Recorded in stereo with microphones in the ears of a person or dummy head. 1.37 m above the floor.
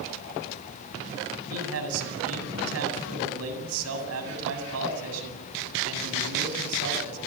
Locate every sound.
1.5 s a man speaking: 85° right, 8 m